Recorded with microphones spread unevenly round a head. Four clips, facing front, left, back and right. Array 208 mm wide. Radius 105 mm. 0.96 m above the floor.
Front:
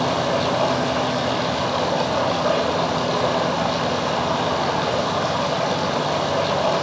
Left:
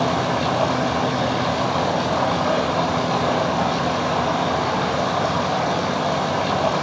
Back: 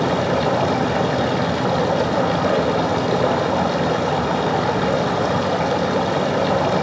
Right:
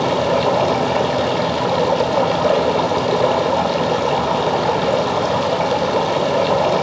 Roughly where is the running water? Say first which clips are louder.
Right 4 dB, back 2 dB; right.